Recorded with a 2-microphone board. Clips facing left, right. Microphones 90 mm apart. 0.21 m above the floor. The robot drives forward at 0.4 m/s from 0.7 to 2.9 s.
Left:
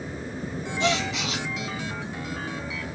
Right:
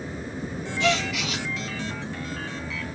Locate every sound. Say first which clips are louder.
0.8 s a gasp: right 1 dB; 25° left (ahead or behind), 1.5 m; by 1.5 s 30° left (ahead or behind), 1.3 m